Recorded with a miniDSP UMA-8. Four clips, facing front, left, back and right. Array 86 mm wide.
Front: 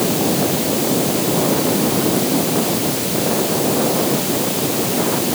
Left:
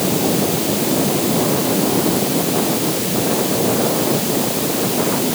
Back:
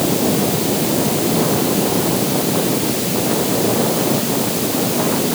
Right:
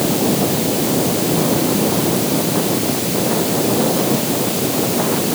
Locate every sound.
Only background noise.